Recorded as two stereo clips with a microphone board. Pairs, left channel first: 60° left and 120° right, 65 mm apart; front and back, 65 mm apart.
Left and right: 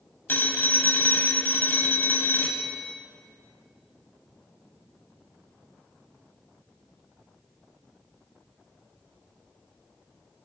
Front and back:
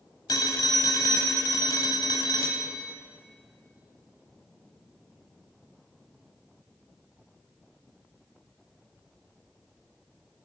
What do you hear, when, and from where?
0.3 s a phone ringing: 5° left, 1.5 m